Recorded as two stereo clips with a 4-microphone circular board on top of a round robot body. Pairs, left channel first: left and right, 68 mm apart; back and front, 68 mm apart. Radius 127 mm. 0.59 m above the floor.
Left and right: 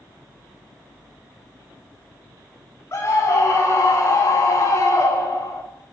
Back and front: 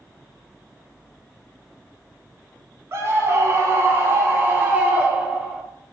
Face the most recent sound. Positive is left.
turn(degrees=80)